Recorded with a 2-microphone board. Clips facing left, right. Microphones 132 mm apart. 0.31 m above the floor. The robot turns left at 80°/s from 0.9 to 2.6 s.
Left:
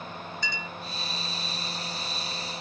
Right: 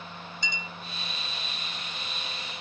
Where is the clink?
20° right (ahead or behind).